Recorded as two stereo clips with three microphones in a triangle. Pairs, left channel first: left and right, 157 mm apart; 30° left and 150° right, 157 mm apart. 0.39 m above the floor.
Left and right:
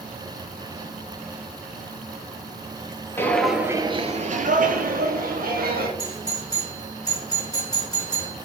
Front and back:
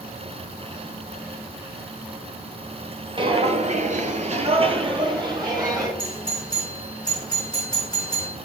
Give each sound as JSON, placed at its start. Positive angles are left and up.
{"t": 3.2, "sound": "footsteps", "azimuth_deg": 160, "distance_m": 0.5}
{"t": 6.0, "sound": "a doorbell", "azimuth_deg": 55, "distance_m": 1.5}